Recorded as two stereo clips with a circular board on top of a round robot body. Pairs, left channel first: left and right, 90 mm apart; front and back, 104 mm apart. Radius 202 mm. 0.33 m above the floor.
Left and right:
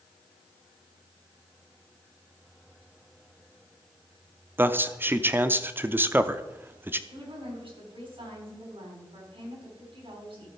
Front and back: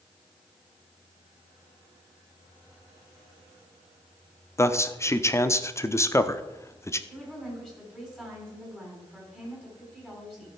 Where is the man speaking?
40° right, 0.9 m.